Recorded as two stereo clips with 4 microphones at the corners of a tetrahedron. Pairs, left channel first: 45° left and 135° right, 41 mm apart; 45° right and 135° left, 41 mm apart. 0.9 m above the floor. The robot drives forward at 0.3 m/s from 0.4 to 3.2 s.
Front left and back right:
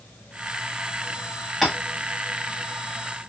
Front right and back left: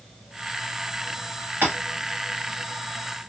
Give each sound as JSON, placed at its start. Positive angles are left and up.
{"t": 1.6, "sound": "tapping", "azimuth_deg": 135, "distance_m": 1.2}